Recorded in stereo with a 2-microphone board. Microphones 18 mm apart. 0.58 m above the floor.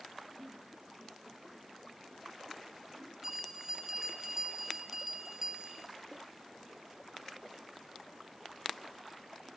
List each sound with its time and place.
0.4 s a giggle: 60° right (ahead or behind), 7.5 m
3.2 s a bell: 20° right (ahead or behind), 3 m